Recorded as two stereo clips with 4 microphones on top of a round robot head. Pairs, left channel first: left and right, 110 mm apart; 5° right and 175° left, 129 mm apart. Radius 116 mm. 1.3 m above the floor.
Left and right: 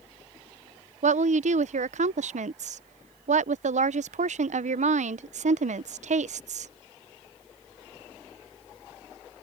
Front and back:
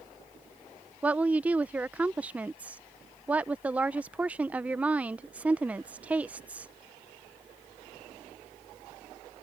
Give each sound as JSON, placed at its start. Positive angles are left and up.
{"t": 1.0, "sound": "a woman speaking", "azimuth_deg": -105}